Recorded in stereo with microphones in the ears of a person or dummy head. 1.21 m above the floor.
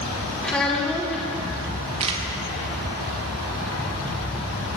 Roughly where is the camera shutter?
Right.